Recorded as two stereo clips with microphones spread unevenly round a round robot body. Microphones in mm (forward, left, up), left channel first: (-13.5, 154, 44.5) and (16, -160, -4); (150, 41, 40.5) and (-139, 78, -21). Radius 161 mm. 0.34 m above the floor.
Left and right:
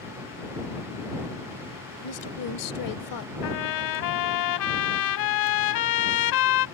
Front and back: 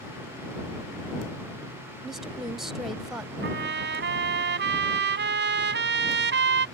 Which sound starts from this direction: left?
A woman speaking, at 2.0 s.